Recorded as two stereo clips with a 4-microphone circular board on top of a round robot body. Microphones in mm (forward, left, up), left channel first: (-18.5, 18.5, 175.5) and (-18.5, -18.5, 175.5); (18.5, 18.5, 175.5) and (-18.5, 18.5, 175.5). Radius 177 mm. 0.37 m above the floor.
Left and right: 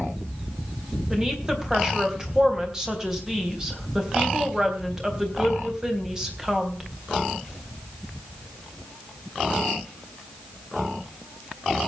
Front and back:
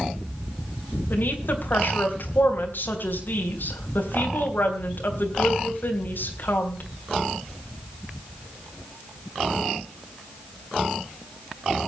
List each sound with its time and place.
1.1 s a woman speaking: 15° right, 3.5 m